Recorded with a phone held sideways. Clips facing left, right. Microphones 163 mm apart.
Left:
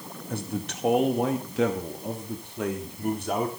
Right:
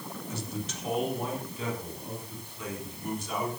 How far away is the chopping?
No chopping in this recording.